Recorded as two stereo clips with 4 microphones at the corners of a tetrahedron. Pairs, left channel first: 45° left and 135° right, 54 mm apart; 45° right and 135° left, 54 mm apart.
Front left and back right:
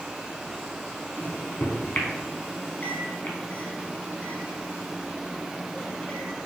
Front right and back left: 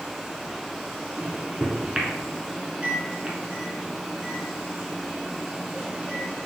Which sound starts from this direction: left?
A microwave, at 1.2 s.